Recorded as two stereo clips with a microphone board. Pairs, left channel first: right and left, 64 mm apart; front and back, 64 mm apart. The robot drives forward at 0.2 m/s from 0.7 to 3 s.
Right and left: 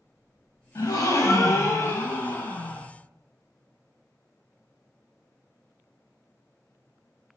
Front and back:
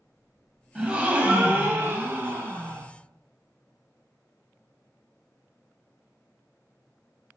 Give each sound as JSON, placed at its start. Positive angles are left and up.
{"t": 0.8, "sound": "a gasp", "azimuth_deg": -110, "distance_m": 0.5}